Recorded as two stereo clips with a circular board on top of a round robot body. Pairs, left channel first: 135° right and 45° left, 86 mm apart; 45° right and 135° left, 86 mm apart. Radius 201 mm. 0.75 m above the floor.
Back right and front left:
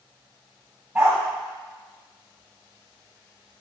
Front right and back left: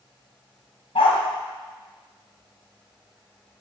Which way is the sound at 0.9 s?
35° right.